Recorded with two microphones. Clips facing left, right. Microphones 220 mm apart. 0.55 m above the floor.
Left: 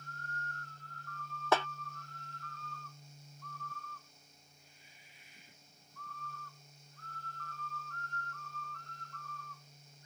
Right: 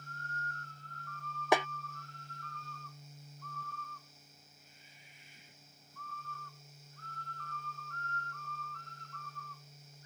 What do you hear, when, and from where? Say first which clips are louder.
1.5 s a snare drum: right 2 dB; 15° right (ahead or behind)